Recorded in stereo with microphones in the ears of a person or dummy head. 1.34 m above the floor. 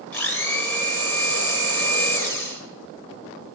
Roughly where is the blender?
Centre.